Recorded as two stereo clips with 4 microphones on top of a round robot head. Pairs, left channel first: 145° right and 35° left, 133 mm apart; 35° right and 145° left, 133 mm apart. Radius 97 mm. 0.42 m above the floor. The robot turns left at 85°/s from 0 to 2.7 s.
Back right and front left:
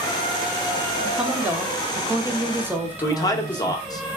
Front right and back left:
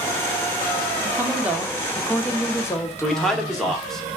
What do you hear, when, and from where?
1.1 s a woman speaking: 125° left, 0.7 m; by 3.8 s 15° right, 0.7 m
3.0 s a man speaking: 120° right, 0.8 m